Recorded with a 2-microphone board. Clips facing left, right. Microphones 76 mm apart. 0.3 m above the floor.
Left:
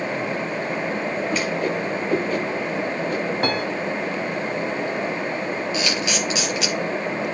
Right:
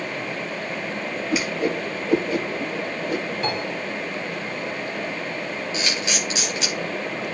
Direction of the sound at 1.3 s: 10° right (ahead or behind).